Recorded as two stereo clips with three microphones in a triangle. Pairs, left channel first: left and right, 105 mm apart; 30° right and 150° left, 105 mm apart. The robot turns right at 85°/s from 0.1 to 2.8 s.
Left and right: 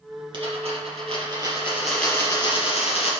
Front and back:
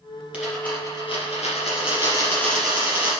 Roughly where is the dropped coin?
Behind right.